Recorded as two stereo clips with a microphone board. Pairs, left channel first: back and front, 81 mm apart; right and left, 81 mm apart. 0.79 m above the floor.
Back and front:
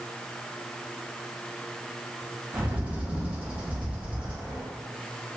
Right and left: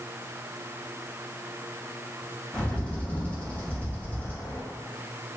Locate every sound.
2.5 s a bird: 50° right, 0.7 m